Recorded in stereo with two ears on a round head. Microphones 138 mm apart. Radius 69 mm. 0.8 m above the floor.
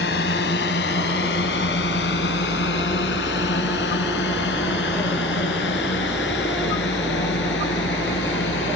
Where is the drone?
80° left; by 8.8 s 85° left.